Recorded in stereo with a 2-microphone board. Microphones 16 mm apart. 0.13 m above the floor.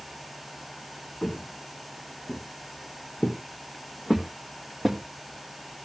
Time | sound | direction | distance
1.2 | footsteps | 45° left (ahead or behind) | 3.5 m